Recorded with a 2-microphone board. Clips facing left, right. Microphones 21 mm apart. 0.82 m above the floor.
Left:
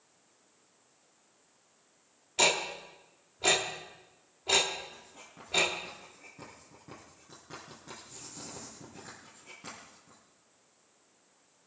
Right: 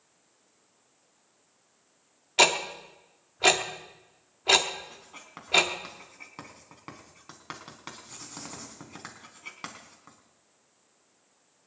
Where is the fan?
No fan in this recording.